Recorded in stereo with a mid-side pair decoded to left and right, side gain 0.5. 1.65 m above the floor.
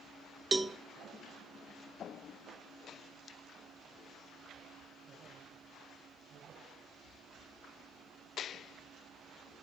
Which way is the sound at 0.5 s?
20° right.